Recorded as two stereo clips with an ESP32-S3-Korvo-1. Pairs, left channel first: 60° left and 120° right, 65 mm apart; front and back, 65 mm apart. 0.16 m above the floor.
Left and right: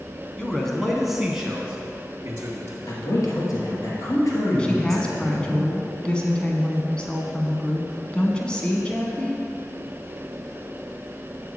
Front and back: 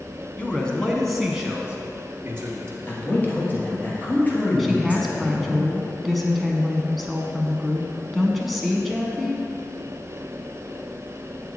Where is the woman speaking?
90° left, 1.0 m.